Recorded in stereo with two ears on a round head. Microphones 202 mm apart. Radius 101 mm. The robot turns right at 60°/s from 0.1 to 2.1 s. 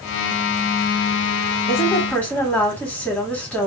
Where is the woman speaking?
30° left (ahead or behind), 1.9 m; by 3.7 s 5° left (ahead or behind), 1.9 m.